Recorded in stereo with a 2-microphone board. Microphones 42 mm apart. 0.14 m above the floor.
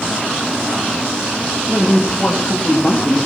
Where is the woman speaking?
25° left (ahead or behind), 5 m; by 3.2 s 20° left (ahead or behind), 7 m.